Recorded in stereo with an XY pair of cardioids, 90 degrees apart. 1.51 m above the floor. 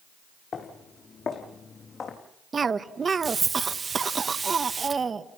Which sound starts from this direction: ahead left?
Footsteps, at 0.5 s.